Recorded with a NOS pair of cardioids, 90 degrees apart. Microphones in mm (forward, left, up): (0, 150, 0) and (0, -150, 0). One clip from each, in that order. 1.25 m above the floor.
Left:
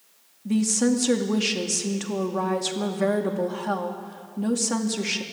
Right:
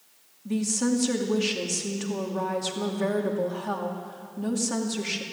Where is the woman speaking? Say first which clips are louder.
Left 4 dB; 25° left, 2.5 m.